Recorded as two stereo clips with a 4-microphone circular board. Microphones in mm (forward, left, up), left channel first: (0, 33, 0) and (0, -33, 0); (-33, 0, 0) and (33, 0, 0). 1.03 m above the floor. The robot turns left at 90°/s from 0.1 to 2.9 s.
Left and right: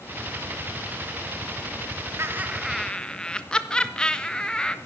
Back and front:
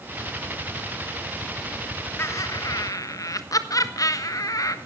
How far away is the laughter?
About 1.2 m.